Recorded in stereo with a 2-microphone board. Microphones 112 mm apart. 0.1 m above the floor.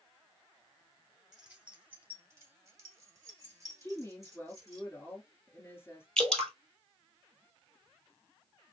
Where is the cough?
No cough in this recording.